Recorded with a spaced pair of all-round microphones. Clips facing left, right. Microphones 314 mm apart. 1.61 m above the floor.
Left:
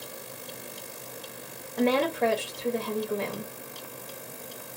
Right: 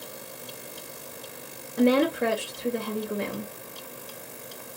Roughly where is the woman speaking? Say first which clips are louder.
Right 4 dB; centre.